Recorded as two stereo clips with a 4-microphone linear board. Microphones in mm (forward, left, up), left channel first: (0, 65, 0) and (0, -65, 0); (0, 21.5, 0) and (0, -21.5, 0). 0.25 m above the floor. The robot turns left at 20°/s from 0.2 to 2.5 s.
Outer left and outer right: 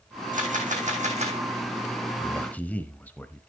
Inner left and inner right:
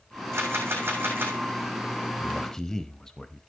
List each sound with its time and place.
0.3 s a camera shutter: 75° right (ahead or behind), 3.5 m; by 1.4 s 50° right (ahead or behind), 3.5 m
2.2 s a man speaking: 10° left (ahead or behind), 1.0 m